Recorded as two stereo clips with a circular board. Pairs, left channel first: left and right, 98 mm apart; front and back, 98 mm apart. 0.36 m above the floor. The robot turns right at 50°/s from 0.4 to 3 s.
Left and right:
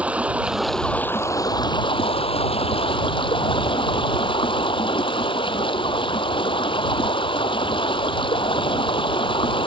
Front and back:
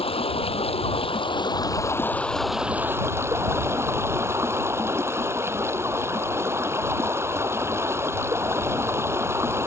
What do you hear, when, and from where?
0.0 s running water: 15° right; by 9.7 s 115° left